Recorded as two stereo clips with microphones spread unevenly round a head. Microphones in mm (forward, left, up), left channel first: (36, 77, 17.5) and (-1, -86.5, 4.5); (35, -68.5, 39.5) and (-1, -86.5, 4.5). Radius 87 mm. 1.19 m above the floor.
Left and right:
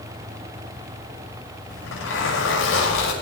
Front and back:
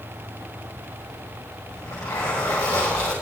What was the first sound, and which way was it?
A zipper, 75° left.